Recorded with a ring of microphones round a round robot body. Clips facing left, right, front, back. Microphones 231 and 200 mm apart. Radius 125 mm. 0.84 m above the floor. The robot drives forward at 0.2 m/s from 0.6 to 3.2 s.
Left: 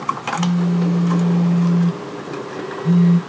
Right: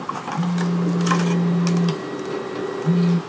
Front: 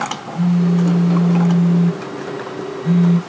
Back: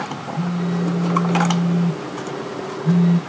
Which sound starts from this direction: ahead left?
A phone buzzing, at 0.3 s.